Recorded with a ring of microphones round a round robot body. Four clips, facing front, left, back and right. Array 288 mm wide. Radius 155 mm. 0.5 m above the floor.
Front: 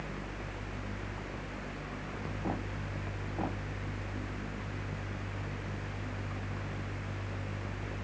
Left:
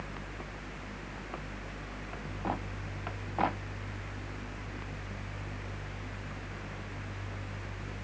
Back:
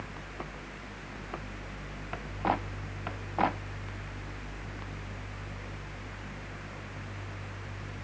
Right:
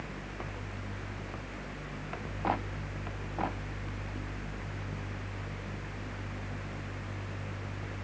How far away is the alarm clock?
No alarm clock in this recording.